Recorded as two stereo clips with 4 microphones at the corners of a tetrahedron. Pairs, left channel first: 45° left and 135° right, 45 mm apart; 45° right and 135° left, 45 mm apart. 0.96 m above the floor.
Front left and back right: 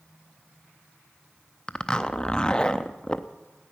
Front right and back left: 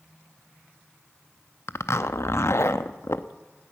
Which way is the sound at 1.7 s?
25° right.